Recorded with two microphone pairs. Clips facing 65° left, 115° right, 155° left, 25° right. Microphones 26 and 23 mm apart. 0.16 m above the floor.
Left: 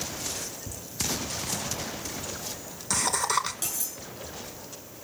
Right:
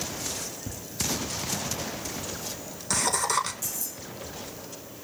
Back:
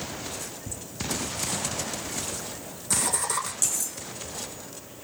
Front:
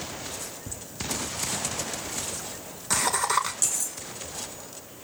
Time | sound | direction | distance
0.7 | laughter | 70° right | 2.5 m
3.6 | cutlery clinking | 65° left | 2.5 m